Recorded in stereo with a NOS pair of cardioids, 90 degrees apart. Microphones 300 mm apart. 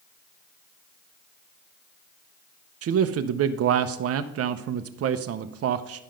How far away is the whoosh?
No whoosh in this recording.